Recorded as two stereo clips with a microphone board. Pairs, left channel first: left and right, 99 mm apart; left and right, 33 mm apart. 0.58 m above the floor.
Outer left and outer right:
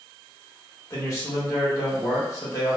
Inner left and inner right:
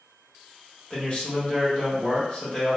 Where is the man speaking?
35° left (ahead or behind), 1.1 m.